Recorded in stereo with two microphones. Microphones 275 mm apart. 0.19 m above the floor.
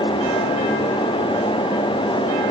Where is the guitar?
No guitar in this recording.